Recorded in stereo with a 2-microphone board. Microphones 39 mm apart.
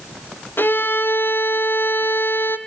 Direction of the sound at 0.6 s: 65° left (ahead or behind).